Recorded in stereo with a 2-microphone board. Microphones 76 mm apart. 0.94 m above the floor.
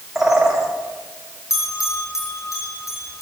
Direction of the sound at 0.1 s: 5° right (ahead or behind).